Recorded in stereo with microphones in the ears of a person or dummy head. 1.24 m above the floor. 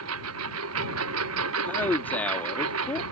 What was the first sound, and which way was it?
A lawn mower, 80° right.